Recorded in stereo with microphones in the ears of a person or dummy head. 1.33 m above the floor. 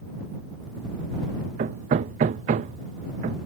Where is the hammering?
40° right (ahead or behind).